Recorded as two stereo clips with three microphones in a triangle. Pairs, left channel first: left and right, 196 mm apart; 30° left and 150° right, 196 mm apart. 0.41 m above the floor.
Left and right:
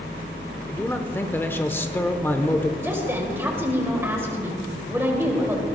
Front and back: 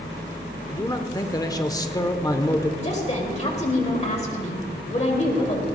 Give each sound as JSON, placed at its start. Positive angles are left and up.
{"t": 0.7, "sound": "a man speaking", "azimuth_deg": 35, "distance_m": 0.8}
{"t": 2.8, "sound": "a woman speaking", "azimuth_deg": -15, "distance_m": 1.8}